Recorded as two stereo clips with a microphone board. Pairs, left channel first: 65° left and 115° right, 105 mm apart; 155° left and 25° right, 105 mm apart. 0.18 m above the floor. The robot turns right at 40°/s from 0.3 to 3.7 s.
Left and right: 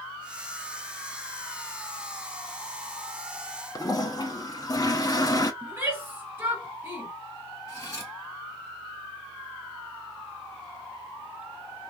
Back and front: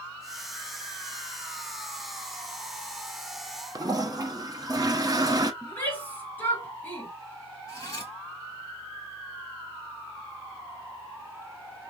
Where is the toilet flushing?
20° left, 0.5 m.